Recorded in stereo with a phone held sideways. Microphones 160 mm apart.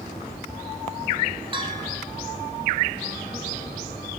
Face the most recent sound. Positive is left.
turn(degrees=-35)  # may be behind; listen again after turning